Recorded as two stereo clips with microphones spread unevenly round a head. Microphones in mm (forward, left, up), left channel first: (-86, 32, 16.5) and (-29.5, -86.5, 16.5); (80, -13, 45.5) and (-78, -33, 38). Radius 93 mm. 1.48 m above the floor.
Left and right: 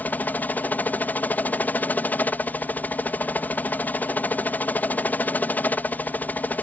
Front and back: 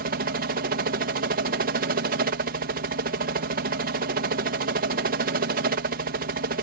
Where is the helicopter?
170° right.